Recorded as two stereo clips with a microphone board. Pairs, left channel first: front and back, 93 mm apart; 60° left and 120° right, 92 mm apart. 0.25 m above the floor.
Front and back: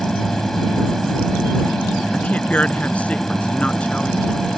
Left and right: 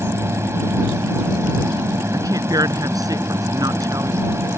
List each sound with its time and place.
0.0 s an aircraft: 85° right
2.1 s a woman speaking: 75° right